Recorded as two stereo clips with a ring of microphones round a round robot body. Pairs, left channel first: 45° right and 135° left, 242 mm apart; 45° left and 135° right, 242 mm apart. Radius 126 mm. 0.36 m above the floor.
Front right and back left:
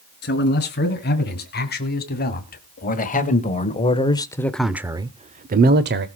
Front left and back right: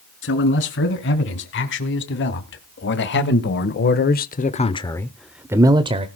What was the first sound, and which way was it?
A man speaking, 5° left.